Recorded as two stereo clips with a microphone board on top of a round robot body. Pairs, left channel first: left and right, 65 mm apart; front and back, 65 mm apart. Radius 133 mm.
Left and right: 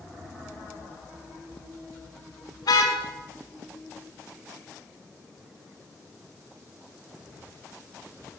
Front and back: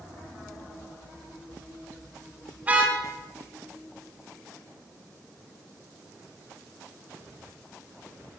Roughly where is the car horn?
Left.